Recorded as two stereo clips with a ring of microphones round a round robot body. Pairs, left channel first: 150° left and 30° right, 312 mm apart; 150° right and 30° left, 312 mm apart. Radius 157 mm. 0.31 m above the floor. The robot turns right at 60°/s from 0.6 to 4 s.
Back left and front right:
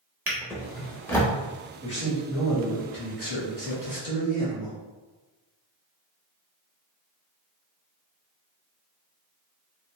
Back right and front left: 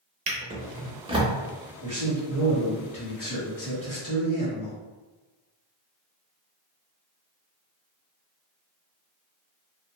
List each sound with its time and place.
0.3 s a drawer: 45° left, 0.5 m; by 1.3 s 90° left, 0.5 m
1.8 s a man speaking: 85° left, 1.7 m; by 4.8 s 145° right, 1.7 m